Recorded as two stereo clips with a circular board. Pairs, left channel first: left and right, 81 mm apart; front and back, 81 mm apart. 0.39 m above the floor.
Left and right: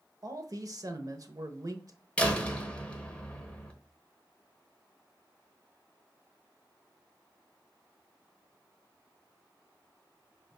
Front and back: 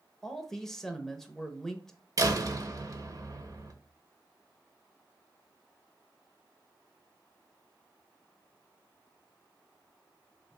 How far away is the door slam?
About 1.1 m.